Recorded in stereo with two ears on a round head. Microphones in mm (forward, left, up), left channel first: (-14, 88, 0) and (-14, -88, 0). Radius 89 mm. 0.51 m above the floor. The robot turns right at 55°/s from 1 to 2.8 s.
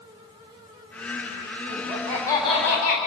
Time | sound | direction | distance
1.7 | laughter | 15° right | 4 m